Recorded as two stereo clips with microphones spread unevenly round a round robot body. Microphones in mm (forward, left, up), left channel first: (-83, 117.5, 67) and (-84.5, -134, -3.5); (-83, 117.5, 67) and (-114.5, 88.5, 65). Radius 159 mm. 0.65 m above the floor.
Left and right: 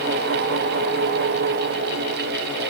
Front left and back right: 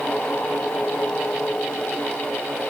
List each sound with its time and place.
Only background noise.